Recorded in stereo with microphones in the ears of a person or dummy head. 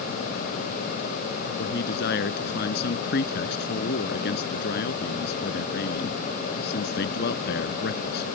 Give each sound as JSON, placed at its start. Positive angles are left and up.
{"t": 1.6, "sound": "a man speaking", "side_deg": 65}